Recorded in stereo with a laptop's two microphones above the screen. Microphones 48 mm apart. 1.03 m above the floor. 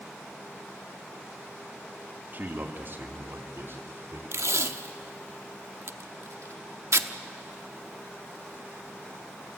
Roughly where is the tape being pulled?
Right.